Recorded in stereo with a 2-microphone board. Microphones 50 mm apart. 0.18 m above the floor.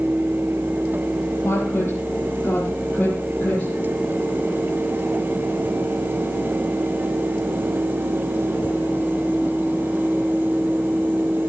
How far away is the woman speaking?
About 5.5 m.